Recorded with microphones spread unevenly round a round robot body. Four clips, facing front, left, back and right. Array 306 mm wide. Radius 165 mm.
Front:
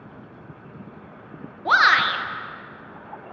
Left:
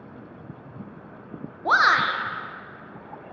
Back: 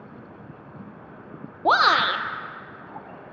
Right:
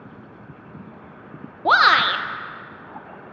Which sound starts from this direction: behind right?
A shout, at 1.6 s.